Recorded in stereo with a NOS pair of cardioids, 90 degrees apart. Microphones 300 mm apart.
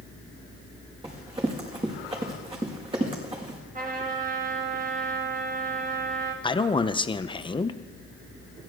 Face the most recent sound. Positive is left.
turn(degrees=15)